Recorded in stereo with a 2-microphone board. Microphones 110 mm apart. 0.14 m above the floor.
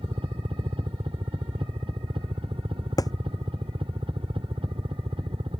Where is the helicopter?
55° right (ahead or behind).